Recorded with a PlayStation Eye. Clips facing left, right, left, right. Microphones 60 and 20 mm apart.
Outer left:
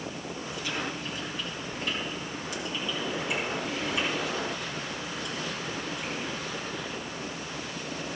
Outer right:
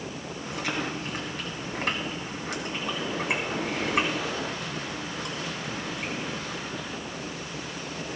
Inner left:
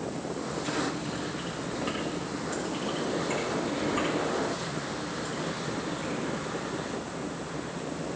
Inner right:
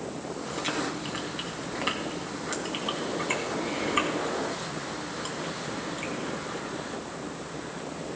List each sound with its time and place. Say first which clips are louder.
0.5 s chewing: outer right 4 dB, inner right 1 dB; 65° right (ahead or behind), 1.9 m